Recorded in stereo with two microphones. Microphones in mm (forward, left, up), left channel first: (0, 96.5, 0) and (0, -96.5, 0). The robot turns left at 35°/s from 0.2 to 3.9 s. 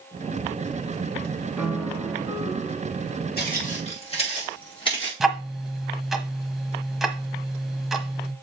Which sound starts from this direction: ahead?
A piano, at 1.6 s.